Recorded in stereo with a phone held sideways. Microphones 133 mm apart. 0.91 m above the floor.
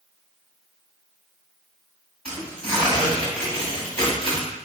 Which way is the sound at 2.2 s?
10° left (ahead or behind).